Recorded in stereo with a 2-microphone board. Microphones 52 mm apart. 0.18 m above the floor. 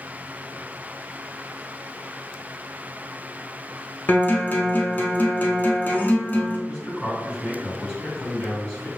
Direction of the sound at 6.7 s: 10° left (ahead or behind).